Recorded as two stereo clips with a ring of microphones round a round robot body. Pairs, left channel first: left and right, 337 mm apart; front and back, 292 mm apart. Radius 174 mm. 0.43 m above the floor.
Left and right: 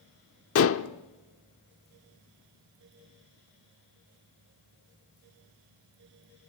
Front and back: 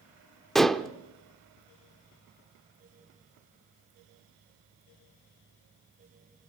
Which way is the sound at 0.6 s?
90° left.